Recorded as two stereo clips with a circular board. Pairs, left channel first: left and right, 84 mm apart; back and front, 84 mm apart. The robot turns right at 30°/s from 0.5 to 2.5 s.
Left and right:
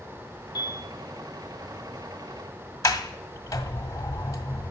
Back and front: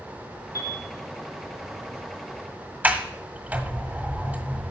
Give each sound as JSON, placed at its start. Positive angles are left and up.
{"t": 0.6, "sound": "a piano", "azimuth_deg": 130, "distance_m": 3.0}
{"t": 2.8, "sound": "a sliding door", "azimuth_deg": 65, "distance_m": 1.4}